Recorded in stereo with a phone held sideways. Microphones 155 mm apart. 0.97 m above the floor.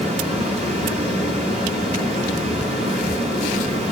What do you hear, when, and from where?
0.0 s a fan: 45° right (ahead or behind), 5.5 m